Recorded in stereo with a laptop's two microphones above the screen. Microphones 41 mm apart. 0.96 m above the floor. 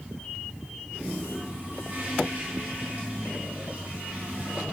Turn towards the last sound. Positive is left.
turn(degrees=-35)  # may be behind; listen again after turning